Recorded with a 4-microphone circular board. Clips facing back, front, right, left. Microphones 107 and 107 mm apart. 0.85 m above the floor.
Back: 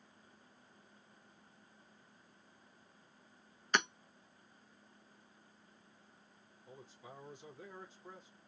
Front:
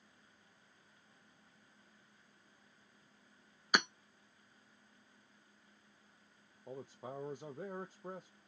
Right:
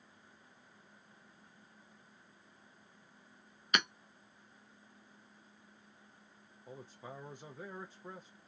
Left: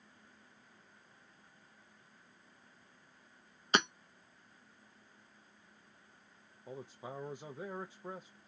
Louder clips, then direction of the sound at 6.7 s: Front 8 dB, left 3 dB; 20° left.